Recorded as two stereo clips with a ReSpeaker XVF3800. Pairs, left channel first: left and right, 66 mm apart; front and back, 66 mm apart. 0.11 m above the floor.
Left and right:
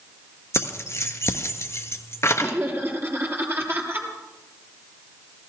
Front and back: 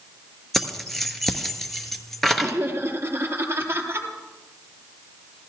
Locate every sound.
0.5 s keys jangling: 85° left, 1.3 m
2.4 s laughter: 135° right, 2.5 m